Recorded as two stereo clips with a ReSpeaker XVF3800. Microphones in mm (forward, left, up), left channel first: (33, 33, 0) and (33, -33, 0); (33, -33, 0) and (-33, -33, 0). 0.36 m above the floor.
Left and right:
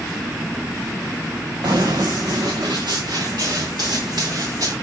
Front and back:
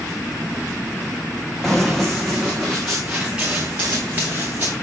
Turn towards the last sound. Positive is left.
turn(degrees=-115)